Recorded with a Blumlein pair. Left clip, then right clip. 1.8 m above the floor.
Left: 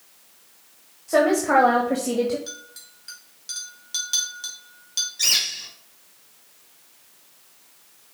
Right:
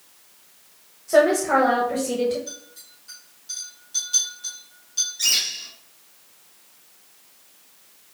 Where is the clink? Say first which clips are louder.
Left 1 dB; 30° left, 3 m.